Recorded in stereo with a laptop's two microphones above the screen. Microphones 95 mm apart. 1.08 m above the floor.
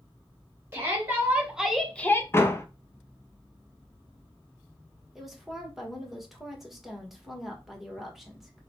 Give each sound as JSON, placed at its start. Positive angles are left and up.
{"t": 0.7, "sound": "a shout", "side_deg": -25, "distance_m": 1.3}
{"t": 2.3, "sound": "a door slam", "side_deg": 25, "distance_m": 0.6}
{"t": 5.2, "sound": "a woman speaking", "side_deg": -5, "distance_m": 1.2}